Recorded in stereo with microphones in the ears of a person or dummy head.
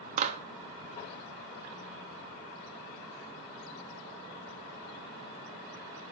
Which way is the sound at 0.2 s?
50° right (ahead or behind).